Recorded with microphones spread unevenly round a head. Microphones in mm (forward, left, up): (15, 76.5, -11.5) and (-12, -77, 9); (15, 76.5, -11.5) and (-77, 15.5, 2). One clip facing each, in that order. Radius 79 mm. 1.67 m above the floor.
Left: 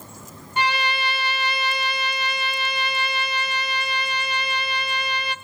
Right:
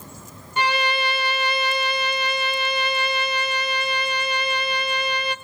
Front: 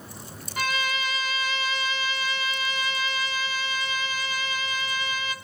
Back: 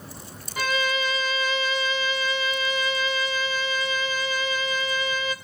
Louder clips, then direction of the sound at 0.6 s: Right 2 dB, back 3 dB; 115° right.